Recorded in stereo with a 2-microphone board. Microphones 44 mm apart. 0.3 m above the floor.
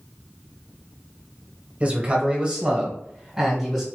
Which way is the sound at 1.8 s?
30° right (ahead or behind).